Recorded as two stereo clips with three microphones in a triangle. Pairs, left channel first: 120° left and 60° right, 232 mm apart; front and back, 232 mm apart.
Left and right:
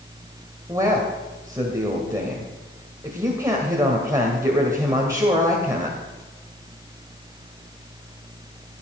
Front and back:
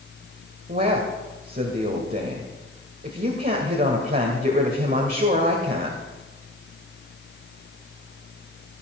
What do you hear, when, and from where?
0.7 s a man speaking: 135° right, 1.9 m